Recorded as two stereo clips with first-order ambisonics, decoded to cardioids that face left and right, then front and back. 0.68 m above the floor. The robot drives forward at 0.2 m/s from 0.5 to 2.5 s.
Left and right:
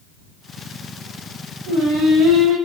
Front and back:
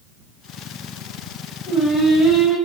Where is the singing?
105° right, 1.0 m; by 2.6 s 115° right, 1.0 m.